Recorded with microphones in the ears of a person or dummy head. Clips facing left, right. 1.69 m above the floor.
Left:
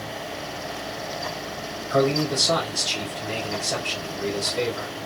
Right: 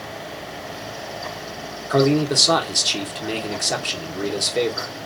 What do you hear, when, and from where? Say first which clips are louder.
1.9 s a man speaking: right 4 dB; 75° right (ahead or behind), 1.2 m